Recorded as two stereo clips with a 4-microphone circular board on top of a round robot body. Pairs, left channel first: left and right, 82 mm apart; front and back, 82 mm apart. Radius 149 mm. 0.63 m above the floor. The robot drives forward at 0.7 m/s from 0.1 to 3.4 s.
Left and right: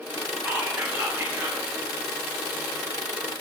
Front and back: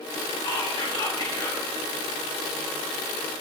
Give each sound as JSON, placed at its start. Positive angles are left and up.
{"t": 0.5, "sound": "whispering", "azimuth_deg": -15, "distance_m": 3.0}